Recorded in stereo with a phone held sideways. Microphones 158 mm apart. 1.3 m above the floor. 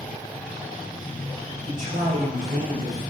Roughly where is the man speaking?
Right.